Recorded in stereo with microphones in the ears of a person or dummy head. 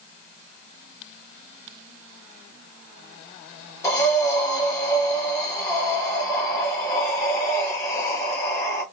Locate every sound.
3.8 s breathing: 20° left (ahead or behind), 1.2 m